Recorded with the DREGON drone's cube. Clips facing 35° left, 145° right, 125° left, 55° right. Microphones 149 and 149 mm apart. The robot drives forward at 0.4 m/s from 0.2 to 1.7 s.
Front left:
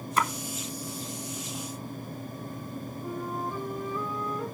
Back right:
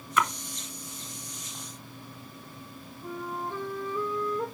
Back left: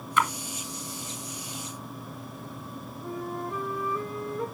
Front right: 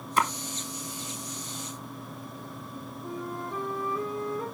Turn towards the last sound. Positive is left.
turn(degrees=155)